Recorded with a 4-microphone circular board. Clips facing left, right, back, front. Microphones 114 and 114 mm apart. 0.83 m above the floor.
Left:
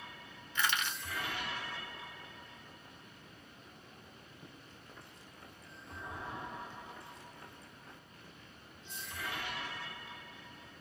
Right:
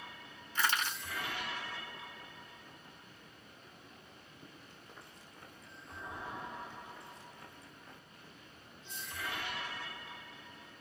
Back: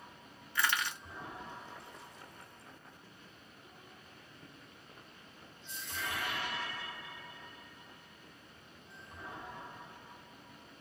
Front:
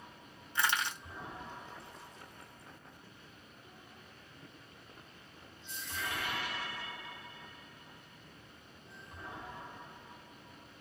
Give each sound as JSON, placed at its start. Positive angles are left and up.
{"t": 0.6, "sound": "crushing", "azimuth_deg": -60, "distance_m": 0.7}